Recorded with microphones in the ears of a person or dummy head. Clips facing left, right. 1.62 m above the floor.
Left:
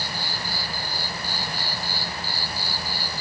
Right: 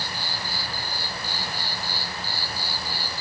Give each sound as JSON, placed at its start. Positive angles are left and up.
{"t": 0.0, "sound": "an insect", "side_deg": 15, "distance_m": 0.7}